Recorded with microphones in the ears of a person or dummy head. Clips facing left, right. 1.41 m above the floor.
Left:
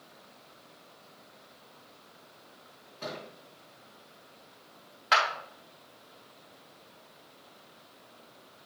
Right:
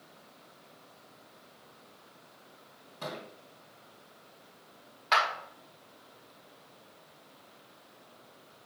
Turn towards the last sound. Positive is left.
turn(degrees=5)  # may be behind; listen again after turning